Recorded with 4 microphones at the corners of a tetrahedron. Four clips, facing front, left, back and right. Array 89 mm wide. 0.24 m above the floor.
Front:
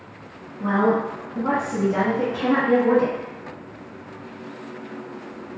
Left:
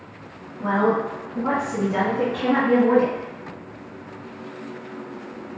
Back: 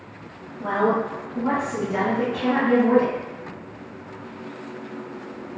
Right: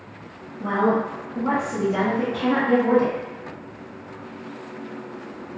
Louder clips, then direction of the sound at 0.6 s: Left 1 dB, front 1 dB; 90° left.